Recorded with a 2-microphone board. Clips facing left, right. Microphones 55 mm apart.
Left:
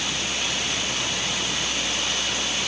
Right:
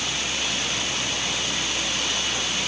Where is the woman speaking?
I don't hear a woman speaking.